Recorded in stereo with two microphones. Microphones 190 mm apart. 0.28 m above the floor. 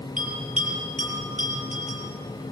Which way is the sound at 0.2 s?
45° right (ahead or behind).